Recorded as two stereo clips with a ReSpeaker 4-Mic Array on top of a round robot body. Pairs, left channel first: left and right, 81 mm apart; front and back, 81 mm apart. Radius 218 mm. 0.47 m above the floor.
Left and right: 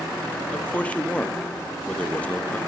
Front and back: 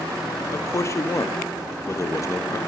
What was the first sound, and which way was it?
A man speaking, 25° left.